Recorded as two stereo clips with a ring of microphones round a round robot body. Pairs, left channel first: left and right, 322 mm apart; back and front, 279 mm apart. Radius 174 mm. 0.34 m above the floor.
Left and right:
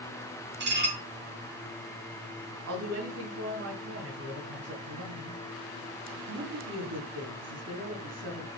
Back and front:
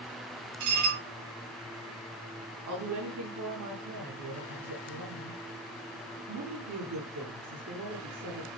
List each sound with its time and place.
0.6 s dishes clattering: 30° right, 4.5 m
2.7 s a woman speaking: 40° right, 4 m